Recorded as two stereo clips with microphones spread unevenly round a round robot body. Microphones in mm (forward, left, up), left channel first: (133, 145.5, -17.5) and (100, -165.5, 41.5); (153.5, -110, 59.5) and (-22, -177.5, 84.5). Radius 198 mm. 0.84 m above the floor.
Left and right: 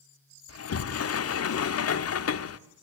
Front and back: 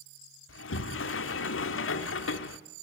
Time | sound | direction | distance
0.5 | a sliding door | 35° left | 1.0 m